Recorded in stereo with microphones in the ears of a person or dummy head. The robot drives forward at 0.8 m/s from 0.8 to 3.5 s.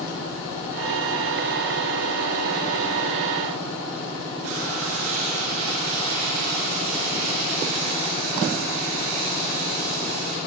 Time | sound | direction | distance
4.4 | frying | 75° right (ahead or behind) | 5.5 m